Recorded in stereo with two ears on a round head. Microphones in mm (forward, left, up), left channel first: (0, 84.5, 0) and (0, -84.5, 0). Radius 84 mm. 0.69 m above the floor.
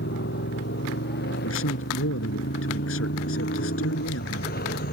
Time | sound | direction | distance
0.0 | a motorcycle | 55° left (ahead or behind) | ?
1.4 | a man speaking | 75° left (ahead or behind) | ?